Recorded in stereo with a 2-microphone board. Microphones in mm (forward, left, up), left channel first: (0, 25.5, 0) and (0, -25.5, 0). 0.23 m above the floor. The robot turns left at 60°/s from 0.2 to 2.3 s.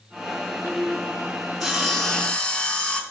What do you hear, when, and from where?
1.6 s sawing: 175° right, 1.8 m; by 3.0 s 140° left, 1.8 m